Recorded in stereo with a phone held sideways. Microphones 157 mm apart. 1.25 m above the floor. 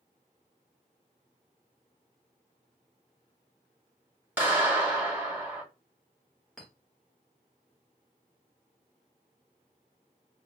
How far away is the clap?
About 1.8 m.